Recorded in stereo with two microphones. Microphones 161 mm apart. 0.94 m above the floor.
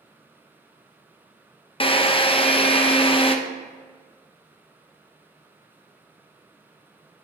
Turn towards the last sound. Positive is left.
turn(degrees=35)  # may be behind; listen again after turning